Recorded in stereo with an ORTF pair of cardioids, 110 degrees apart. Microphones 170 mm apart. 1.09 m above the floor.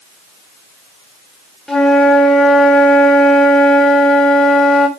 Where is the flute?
5° left, 1.6 m.